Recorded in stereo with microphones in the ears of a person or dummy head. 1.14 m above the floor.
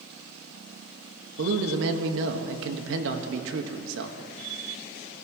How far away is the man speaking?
About 1.6 m.